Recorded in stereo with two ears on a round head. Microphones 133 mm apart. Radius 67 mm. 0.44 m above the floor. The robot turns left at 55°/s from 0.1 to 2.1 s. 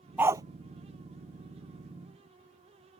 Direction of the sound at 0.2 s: 10° right (ahead or behind).